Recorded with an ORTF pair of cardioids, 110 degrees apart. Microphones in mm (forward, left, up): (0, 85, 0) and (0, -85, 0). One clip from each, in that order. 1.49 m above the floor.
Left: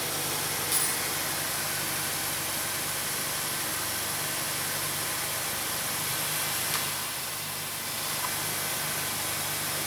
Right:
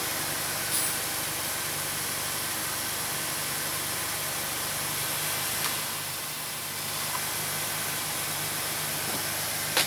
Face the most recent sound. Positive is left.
turn(degrees=25)